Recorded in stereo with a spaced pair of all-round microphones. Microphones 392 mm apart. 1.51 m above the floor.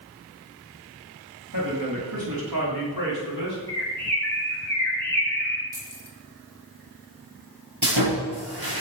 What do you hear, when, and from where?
1.5 s a man speaking: 50° right (ahead or behind), 3 m; by 3.6 s 70° right (ahead or behind), 4.5 m
3.7 s a bird: 5° left (ahead or behind), 6.5 m
5.7 s keys jangling: 10° right (ahead or behind), 2 m
7.8 s sawing: 65° right (ahead or behind), 6 m